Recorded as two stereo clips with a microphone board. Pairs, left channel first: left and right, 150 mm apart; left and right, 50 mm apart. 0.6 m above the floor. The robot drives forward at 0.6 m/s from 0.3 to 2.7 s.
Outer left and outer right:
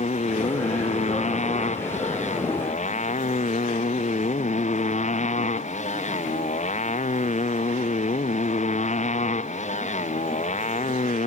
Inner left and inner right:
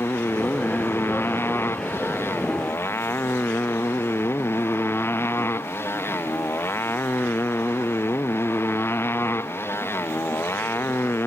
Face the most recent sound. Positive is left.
turn(degrees=50)  # may be behind; listen again after turning